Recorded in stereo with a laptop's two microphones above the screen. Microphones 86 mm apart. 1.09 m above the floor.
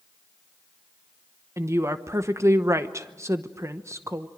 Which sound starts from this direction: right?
A woman speaking, at 1.6 s.